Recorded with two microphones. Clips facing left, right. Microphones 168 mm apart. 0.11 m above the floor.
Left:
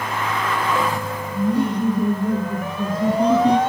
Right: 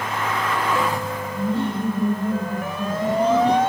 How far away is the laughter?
About 4.5 m.